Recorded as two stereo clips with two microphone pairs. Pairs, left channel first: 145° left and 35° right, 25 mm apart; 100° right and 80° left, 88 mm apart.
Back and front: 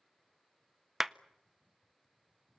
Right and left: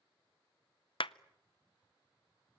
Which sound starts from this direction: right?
A clap, at 1.0 s.